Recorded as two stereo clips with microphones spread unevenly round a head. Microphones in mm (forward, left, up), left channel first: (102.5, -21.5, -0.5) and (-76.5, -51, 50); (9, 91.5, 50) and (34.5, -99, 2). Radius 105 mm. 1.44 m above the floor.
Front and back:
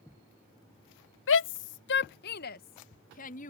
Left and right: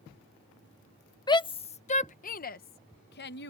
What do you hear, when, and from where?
1.3 s a shout: 25° left; by 3.5 s 60° left